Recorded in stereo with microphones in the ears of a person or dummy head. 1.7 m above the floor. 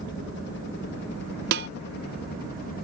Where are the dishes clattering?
40° right (ahead or behind).